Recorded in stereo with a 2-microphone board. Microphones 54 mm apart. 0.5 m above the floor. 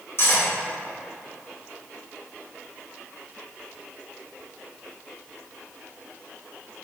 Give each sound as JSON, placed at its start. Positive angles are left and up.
{"t": 0.2, "sound": "cutlery clinking", "side_deg": 50, "distance_m": 1.0}